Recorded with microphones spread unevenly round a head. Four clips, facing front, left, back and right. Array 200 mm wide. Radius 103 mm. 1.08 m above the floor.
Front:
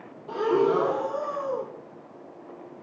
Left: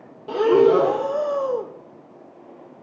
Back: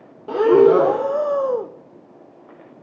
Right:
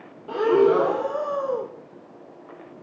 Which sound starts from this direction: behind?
Breathing, at 0.3 s.